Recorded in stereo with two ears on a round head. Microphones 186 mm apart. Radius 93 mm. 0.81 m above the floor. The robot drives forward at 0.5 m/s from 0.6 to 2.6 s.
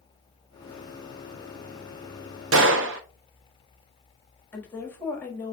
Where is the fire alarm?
No fire alarm in this recording.